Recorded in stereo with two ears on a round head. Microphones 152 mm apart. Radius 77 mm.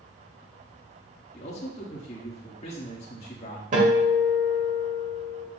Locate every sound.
1.3 s a man speaking: 35° left (ahead or behind), 1.5 m
3.7 s a guitar: 50° right (ahead or behind), 2.5 m